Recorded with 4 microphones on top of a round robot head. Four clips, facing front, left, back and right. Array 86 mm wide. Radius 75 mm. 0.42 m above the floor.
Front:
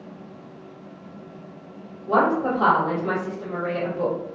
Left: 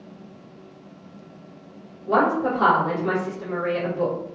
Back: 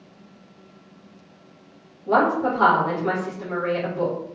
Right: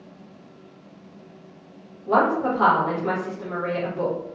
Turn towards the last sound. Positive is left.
turn(degrees=-145)